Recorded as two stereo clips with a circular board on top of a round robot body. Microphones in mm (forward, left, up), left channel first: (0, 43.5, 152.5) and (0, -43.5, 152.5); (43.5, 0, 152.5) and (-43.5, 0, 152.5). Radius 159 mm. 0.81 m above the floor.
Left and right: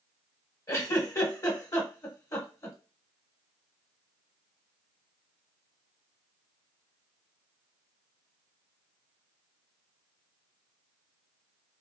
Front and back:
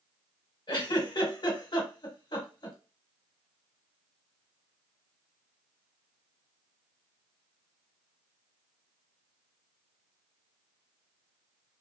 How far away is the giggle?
About 1.3 m.